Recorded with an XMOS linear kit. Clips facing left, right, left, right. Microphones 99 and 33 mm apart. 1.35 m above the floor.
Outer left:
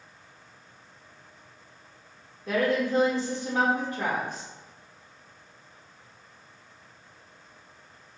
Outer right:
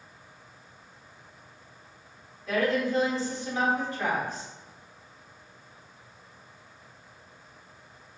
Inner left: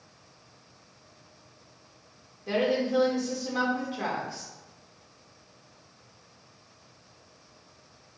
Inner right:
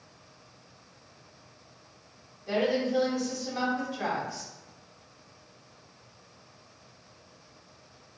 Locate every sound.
2.5 s a woman speaking: 55° left (ahead or behind), 1.4 m